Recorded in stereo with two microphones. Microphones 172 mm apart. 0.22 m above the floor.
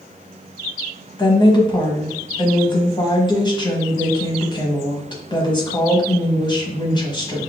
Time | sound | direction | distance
1.2 | a woman speaking | 25° left (ahead or behind) | 1.3 m